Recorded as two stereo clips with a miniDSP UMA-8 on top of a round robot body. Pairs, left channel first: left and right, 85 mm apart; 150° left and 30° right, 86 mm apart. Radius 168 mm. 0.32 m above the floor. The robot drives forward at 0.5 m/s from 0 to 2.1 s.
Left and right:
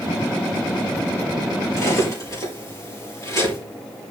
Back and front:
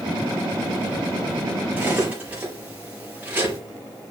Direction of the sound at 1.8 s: 40° left.